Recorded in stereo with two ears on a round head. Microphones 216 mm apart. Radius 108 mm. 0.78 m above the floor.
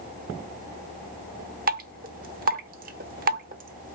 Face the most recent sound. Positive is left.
turn(degrees=-35)  # may be behind; listen again after turning